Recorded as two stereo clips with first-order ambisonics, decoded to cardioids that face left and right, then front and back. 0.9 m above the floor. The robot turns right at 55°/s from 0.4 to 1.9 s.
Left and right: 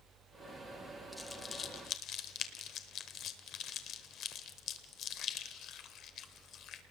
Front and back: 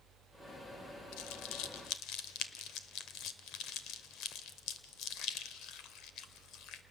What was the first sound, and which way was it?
Crumpling, straight ahead.